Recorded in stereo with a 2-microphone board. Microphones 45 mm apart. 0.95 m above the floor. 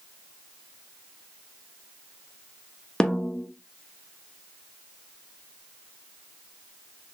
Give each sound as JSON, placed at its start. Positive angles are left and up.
{"t": 3.0, "sound": "a snare drum", "side_deg": 15, "distance_m": 0.6}